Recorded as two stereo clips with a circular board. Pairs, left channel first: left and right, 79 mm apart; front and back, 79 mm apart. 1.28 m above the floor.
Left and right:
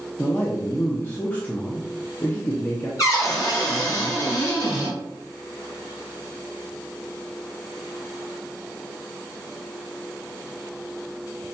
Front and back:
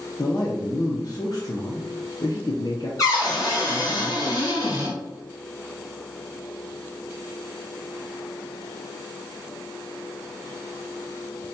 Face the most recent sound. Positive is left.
turn(degrees=45)